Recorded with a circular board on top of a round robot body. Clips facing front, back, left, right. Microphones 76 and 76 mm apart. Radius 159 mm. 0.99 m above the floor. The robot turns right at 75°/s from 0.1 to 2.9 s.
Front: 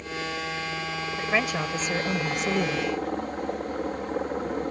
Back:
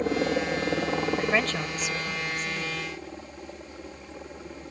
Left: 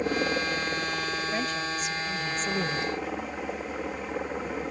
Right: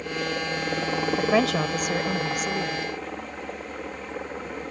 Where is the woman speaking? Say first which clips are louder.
Even, right 8 dB; 105° right; by 2.9 s 25° left.